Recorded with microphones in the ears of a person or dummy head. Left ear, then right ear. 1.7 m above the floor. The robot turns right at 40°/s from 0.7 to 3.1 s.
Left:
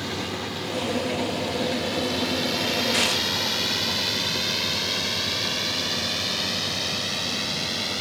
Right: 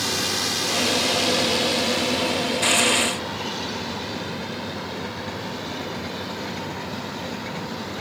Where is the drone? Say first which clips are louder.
Right 6 dB; 80° right; by 8.0 s 55° left (ahead or behind).